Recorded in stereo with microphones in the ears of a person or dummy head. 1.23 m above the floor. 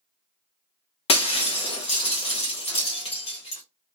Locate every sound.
1.1 s breaking glass: 25° left (ahead or behind), 0.7 m